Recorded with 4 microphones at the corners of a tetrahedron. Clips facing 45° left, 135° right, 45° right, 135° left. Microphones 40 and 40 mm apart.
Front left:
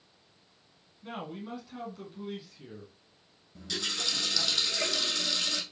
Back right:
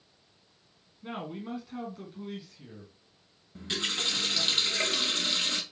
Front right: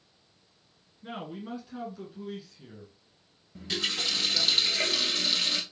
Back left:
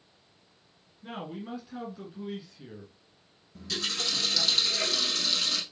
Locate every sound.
1.0 s a man speaking: 120° right, 1.5 m; by 4.5 s 105° left, 2.5 m
3.5 s a running tap: 90° right, 1.4 m